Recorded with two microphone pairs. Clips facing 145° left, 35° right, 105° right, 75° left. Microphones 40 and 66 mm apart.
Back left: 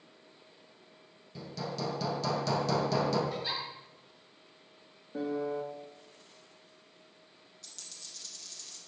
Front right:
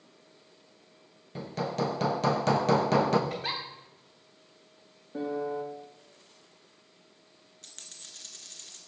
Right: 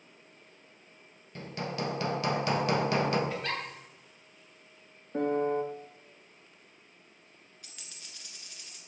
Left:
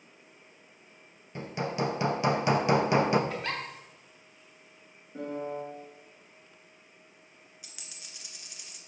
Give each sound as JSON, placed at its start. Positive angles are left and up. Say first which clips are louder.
{"t": 1.4, "sound": "hammering", "louder": "front right 6 dB, left 4 dB", "azimuth_deg": 5, "distance_m": 0.9}
{"t": 3.3, "sound": "a giggle", "louder": "front right 2 dB, even", "azimuth_deg": -10, "distance_m": 2.5}
{"t": 5.1, "sound": "a piano", "louder": "front right 1 dB, right 7 dB", "azimuth_deg": -115, "distance_m": 0.7}
{"t": 7.6, "sound": "a dropped coin", "louder": "front right 2 dB, even", "azimuth_deg": -5, "distance_m": 1.5}